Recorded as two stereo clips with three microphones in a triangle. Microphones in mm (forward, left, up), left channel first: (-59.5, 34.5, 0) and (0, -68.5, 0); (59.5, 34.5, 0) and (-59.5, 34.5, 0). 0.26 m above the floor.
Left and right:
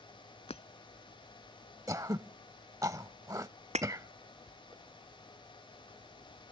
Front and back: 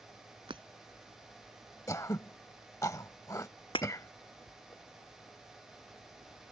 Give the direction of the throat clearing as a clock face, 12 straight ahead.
1 o'clock.